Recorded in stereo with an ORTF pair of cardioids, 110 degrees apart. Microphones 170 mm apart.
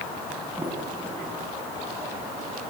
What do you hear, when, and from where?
0.6 s a sliding door: 10° right, 6.5 m